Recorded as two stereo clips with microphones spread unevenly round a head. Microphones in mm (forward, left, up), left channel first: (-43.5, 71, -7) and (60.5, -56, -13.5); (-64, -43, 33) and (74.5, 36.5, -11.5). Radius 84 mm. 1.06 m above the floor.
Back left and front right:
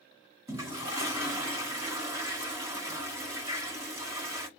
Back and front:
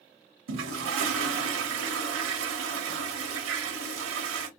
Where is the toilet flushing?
25° left, 1.0 m.